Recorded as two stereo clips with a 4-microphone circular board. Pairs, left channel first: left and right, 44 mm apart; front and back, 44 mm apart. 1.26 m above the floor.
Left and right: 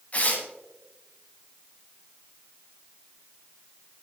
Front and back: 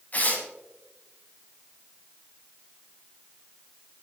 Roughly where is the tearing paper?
Ahead left.